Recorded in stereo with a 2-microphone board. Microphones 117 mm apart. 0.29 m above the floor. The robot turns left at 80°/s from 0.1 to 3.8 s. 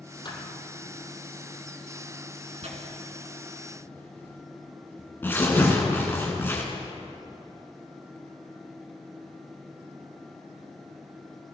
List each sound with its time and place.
0.2 s a thud: 40° left (ahead or behind), 2 m; by 0.6 s 65° left (ahead or behind), 2 m
2.6 s tearing paper: 65° right (ahead or behind), 2.5 m; by 6.7 s 20° left (ahead or behind), 2.5 m